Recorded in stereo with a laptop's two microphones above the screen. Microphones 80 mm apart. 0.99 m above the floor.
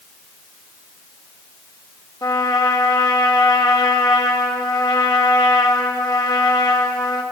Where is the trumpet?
55° left (ahead or behind), 1.9 m.